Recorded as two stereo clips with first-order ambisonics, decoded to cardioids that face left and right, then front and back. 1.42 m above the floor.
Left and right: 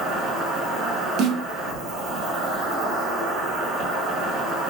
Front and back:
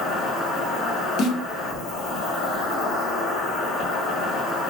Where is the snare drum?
50° right, 0.6 m.